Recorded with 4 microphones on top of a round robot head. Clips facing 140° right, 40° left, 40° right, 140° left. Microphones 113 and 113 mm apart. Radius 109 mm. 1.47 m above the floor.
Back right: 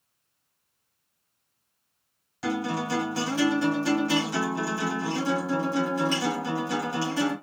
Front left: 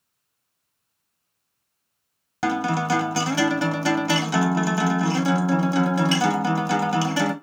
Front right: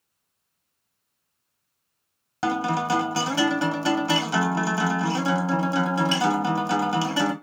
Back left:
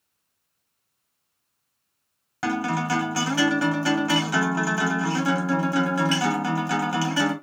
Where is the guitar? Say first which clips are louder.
Front left 5 dB, front right 1 dB; 25° left, 1.4 m.